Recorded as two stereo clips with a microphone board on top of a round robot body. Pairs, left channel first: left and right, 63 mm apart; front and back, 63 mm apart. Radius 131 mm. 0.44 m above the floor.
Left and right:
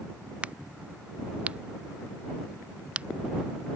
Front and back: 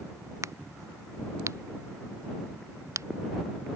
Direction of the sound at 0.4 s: 160° right.